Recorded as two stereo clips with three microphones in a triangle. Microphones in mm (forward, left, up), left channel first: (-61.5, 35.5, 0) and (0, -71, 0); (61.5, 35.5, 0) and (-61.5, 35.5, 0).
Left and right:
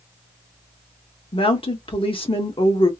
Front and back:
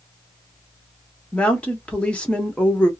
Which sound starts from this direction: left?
A woman speaking, at 1.3 s.